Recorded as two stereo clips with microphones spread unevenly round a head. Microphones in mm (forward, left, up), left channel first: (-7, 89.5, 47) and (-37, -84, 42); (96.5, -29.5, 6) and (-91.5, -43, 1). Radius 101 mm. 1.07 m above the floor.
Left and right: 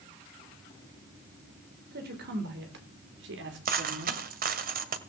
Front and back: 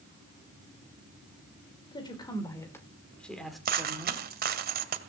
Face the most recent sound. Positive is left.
turn(degrees=-140)